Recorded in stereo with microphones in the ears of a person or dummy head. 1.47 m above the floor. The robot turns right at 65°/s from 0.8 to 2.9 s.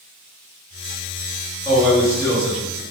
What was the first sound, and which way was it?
A man speaking, 20° right.